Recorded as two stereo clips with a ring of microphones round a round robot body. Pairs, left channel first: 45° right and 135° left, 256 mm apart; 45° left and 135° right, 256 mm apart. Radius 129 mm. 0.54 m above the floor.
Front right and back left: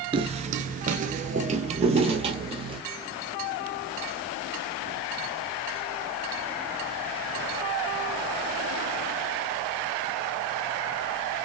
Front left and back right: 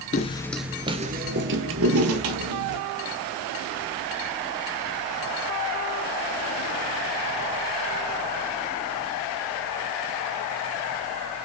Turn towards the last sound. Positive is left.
turn(degrees=-155)